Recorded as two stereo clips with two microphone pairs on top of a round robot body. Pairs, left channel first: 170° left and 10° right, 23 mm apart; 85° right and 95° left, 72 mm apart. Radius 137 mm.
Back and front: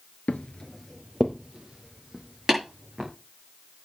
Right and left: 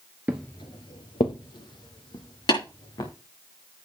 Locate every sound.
0.3 s footsteps: 170° left, 0.5 m; by 3.1 s 60° right, 3 m
2.5 s tapping: 80° right, 6.5 m